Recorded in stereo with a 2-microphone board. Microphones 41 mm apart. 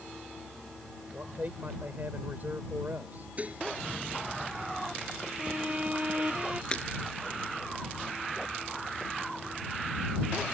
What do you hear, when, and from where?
1.1 s a man speaking: 50° right (ahead or behind)
3.4 s dishes clattering: 35° right (ahead or behind)
5.4 s a violin: 35° right (ahead or behind)
6.7 s breaking glass: 20° left (ahead or behind)